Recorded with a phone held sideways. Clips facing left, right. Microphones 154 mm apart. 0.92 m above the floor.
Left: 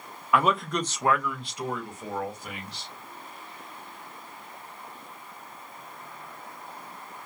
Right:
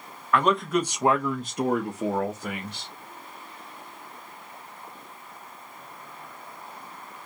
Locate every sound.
0.3 s a man speaking: 10° left (ahead or behind), 0.7 m; by 2.9 s 70° right (ahead or behind), 1.0 m